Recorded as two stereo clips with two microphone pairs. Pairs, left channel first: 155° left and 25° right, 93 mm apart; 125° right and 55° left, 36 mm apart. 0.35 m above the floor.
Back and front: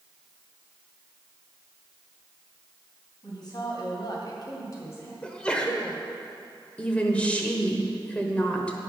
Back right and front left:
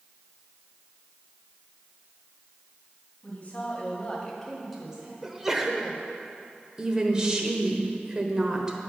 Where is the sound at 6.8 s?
95° left, 1.0 m.